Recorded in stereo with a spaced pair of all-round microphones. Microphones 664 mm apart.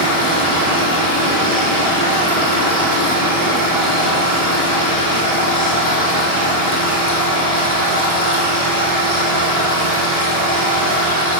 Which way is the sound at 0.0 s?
65° right (ahead or behind).